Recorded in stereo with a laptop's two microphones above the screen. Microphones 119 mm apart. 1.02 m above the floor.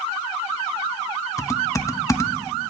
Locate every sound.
1.4 s typing on a keyboard: 25° left (ahead or behind), 0.8 m